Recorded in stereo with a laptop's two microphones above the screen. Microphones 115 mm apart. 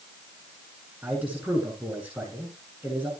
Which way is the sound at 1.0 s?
15° right (ahead or behind).